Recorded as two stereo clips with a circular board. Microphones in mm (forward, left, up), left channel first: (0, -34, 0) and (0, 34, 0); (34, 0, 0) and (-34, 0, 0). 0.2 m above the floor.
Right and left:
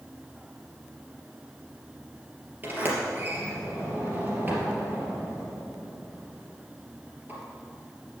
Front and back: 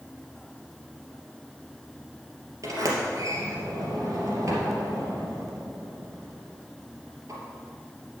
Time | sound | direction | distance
2.6 | a sliding door | 150° left | 3 m